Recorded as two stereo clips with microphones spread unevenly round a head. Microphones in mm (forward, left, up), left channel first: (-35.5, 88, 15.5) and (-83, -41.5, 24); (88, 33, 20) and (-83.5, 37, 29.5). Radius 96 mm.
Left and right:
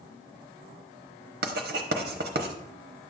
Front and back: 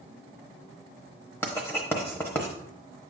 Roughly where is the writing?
Right.